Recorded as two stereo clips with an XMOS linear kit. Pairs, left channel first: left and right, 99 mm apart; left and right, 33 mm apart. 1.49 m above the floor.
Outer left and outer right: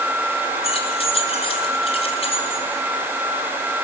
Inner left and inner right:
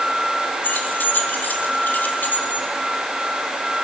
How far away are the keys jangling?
About 2.5 m.